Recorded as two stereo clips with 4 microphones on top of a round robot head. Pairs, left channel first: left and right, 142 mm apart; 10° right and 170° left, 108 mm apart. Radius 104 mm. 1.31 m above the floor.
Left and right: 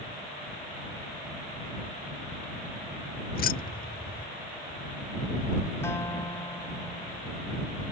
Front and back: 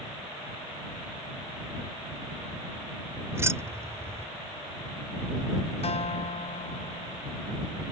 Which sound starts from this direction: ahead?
A guitar, at 5.8 s.